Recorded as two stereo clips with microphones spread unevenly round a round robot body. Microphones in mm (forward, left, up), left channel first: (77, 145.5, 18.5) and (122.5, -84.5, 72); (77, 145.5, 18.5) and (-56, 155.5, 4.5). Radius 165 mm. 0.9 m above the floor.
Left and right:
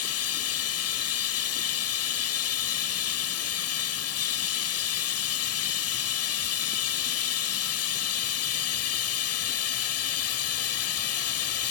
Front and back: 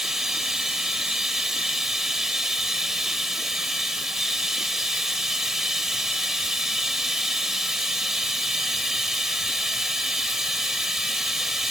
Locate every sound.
0.0 s running water: 85° left